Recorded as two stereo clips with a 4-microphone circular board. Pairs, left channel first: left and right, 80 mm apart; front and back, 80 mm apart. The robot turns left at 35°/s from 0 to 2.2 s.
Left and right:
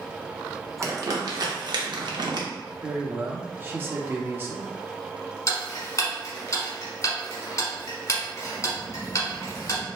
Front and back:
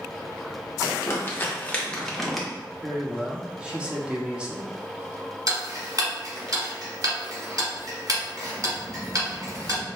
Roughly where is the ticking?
Behind left.